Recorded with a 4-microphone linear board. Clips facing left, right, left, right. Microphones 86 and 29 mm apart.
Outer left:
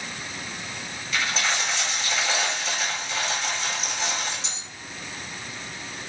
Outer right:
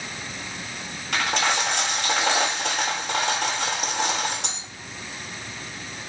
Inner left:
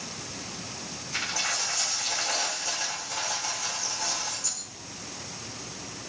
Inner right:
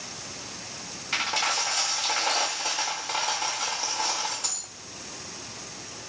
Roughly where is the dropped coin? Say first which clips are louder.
Outer right 3 dB, inner right 4 dB; right.